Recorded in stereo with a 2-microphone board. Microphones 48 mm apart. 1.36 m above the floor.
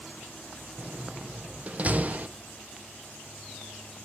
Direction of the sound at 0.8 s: 35° right (ahead or behind).